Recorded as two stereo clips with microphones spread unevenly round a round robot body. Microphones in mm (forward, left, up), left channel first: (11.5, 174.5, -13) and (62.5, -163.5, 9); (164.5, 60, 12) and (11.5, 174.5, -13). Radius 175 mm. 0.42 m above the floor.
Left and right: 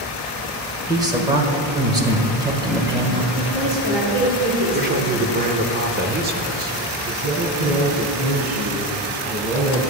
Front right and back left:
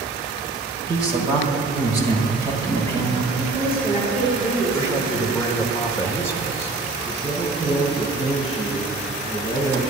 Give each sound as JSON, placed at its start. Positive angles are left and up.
{"t": 0.9, "sound": "a man speaking", "azimuth_deg": -160, "distance_m": 1.5}
{"t": 3.4, "sound": "a woman speaking", "azimuth_deg": -135, "distance_m": 5.0}
{"t": 4.7, "sound": "a man speaking", "azimuth_deg": -120, "distance_m": 1.0}
{"t": 7.0, "sound": "a man speaking", "azimuth_deg": -125, "distance_m": 5.0}